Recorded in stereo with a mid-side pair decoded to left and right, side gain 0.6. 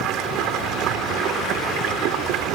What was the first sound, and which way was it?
Running water, 70° right.